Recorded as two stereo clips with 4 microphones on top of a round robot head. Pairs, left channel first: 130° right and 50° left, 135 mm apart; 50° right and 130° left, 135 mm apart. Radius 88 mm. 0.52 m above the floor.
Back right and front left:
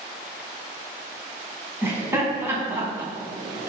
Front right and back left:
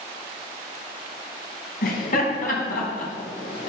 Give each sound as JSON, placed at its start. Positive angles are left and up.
{"t": 1.8, "sound": "laughter", "azimuth_deg": -25, "distance_m": 4.0}